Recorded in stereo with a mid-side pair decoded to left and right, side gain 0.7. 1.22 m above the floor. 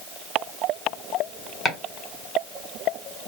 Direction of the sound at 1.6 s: 25° left.